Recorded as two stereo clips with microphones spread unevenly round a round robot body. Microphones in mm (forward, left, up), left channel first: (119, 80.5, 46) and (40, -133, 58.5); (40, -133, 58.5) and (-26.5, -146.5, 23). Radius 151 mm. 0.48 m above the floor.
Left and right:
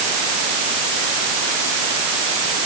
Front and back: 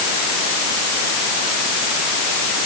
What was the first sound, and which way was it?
Only background noise.